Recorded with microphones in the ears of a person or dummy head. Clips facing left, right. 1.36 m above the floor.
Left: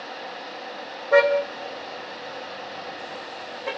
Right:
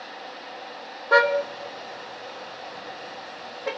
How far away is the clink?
I don't hear a clink.